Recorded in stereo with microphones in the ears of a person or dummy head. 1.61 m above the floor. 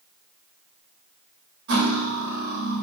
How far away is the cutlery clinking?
About 1.7 m.